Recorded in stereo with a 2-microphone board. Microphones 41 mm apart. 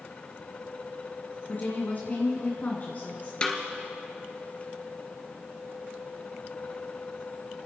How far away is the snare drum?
About 1.5 m.